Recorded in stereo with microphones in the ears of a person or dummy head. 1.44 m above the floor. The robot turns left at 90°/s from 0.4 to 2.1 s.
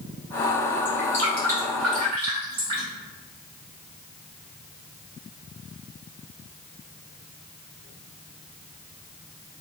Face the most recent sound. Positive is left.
turn(degrees=-30)  # may be behind; listen again after turning